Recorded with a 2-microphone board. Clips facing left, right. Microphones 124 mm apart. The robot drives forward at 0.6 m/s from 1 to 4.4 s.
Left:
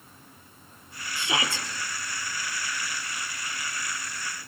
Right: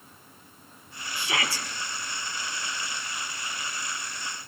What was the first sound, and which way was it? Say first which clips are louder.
A shout: left 1 dB; 20° left (ahead or behind).